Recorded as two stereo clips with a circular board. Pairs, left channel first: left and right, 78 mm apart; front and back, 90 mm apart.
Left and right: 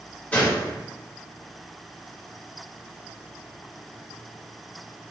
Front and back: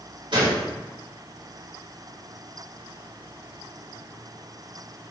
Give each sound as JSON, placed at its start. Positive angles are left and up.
{"t": 0.3, "sound": "a gunshot", "azimuth_deg": 155, "distance_m": 3.0}